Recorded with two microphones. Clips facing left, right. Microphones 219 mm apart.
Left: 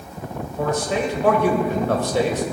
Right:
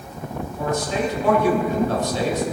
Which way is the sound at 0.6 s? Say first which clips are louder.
Left 2 dB; 70° left (ahead or behind).